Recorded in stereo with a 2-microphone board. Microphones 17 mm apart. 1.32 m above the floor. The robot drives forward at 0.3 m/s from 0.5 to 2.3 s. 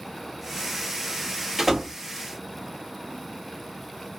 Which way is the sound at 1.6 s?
10° right (ahead or behind).